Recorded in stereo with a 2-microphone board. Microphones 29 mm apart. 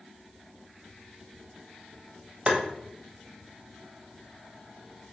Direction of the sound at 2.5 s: 35° right (ahead or behind).